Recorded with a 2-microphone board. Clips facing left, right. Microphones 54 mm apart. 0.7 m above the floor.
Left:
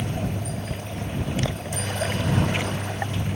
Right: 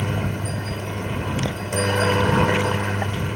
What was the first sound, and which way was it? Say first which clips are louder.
A helicopter: right 3 dB; 60° right (ahead or behind).